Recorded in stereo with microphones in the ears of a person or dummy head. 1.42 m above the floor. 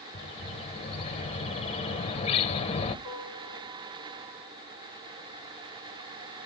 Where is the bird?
25° left (ahead or behind), 1.2 m.